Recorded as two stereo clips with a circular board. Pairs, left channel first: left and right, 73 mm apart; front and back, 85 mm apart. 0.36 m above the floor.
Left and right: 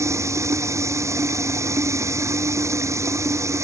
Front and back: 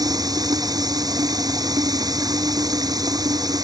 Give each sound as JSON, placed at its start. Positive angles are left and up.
{"t": 0.0, "sound": "running water", "azimuth_deg": -140}